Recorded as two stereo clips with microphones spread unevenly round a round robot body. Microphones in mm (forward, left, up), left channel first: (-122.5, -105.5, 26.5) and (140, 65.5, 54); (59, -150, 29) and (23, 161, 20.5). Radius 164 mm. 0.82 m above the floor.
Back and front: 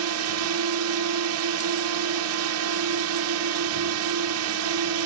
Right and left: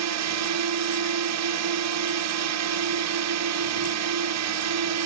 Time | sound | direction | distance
0.0 | a drone | 70° left | ?